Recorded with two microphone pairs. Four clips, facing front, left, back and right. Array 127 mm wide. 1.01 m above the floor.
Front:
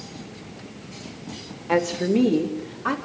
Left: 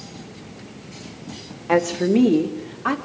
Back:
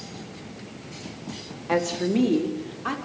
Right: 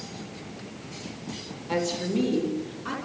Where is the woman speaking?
105° left, 2 m; by 3.0 s 85° left, 3.5 m.